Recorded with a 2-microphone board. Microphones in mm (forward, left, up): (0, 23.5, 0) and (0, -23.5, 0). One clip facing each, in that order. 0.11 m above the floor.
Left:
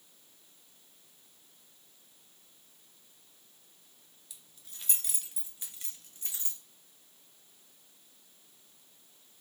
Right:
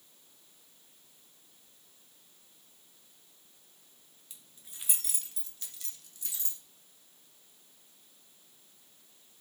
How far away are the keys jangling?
About 1.0 m.